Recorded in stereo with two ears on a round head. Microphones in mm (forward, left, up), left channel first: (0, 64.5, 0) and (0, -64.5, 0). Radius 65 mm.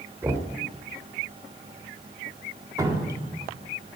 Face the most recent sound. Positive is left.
turn(degrees=-25)  # may be behind; listen again after turning